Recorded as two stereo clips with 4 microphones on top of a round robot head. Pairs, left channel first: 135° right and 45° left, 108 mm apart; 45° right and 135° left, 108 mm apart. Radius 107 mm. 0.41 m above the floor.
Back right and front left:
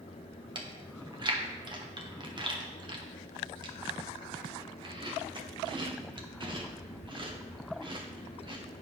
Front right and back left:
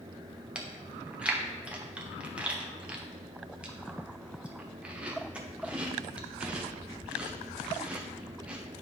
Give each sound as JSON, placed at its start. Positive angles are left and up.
{"t": 0.6, "sound": "chewing", "azimuth_deg": 60, "distance_m": 1.2}